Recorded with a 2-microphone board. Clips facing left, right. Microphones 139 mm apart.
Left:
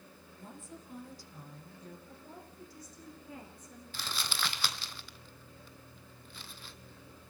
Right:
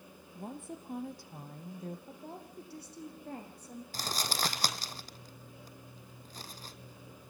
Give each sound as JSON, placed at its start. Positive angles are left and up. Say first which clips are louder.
{"t": 0.3, "sound": "a woman speaking", "louder": "right 7 dB", "side_deg": -65, "distance_m": 3.5}
{"t": 2.1, "sound": "a woman speaking", "louder": "right 4 dB", "side_deg": -70, "distance_m": 6.5}
{"t": 3.9, "sound": "crumpling", "louder": "right 3 dB", "side_deg": -40, "distance_m": 1.1}